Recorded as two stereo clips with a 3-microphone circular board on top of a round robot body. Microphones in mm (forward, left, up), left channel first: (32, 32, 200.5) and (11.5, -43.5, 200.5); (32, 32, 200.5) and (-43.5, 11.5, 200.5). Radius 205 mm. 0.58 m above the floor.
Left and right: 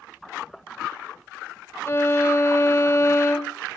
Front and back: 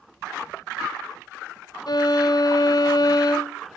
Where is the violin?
25° left, 2 m.